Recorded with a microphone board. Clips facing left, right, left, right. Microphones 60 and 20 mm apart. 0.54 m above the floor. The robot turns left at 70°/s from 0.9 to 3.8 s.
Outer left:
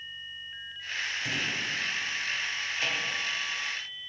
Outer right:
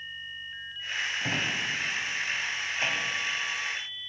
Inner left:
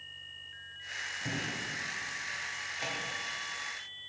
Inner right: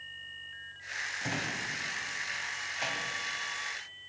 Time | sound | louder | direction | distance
1.2 | a drawer | outer right 2 dB, inner right 1 dB | 40° right (ahead or behind) | 1.3 m